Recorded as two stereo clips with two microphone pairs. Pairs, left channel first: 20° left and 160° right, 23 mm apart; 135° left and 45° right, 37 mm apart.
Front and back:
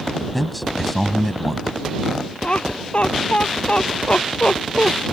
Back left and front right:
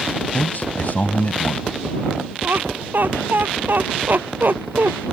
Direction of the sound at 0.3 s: 105° left.